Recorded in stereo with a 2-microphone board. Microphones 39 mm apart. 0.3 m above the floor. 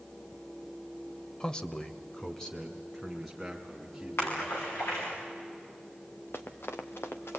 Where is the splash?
90° left, 6.5 m.